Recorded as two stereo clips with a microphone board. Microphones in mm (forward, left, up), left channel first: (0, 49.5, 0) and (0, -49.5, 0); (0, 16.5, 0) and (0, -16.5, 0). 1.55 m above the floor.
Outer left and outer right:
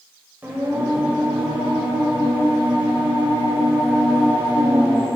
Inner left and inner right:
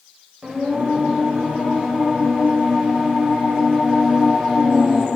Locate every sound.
0.4 s singing: 20° right (ahead or behind), 1.5 m